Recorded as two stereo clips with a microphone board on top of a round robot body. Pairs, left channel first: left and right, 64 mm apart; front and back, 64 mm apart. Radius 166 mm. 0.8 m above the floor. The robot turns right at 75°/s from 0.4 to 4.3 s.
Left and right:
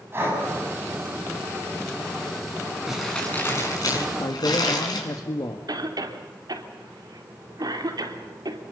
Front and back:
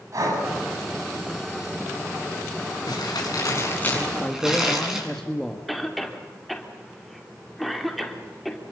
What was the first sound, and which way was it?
Breathing, 145° right.